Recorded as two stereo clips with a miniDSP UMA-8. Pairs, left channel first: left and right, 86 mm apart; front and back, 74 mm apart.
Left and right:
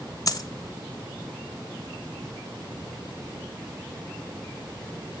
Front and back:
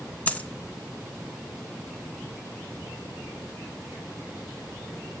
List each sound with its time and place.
0.3 s a dropped coin: 65° left, 0.6 m